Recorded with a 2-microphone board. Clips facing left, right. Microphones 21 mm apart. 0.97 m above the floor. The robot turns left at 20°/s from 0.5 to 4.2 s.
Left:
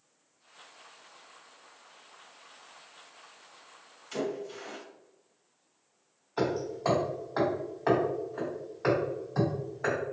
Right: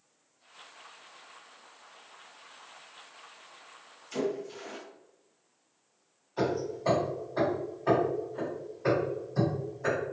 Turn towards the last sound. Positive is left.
turn(degrees=60)  # may be behind; listen again after turning